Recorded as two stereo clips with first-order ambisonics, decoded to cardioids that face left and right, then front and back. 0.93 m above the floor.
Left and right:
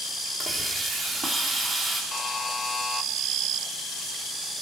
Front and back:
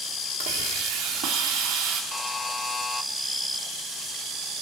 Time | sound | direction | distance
0.4 | a hiss | 165° right | 3 m
2.1 | a buzzer | 50° left | 0.6 m